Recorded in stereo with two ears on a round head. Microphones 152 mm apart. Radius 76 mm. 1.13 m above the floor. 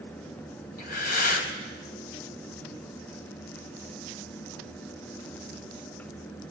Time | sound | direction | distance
0.8 | breathing | 60° left (ahead or behind) | 4.5 m